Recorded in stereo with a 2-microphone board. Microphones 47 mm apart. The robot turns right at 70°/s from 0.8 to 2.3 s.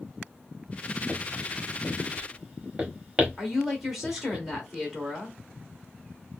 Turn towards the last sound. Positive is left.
turn(degrees=0)  # may be behind; listen again after turning